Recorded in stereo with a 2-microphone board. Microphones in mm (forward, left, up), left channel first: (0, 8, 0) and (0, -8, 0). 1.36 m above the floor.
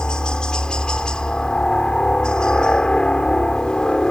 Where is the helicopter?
55° left (ahead or behind).